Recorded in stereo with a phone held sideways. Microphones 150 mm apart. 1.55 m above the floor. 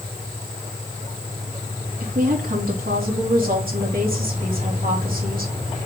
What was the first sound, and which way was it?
A woman speaking, 65° right (ahead or behind).